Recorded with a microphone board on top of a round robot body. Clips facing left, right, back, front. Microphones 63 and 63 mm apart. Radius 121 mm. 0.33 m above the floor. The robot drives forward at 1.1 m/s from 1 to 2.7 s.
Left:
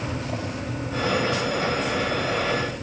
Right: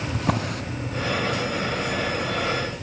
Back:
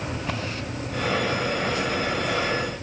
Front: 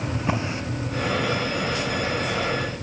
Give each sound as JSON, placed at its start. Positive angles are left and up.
{"t": 0.1, "sound": "a drawer", "azimuth_deg": -70, "distance_m": 2.5}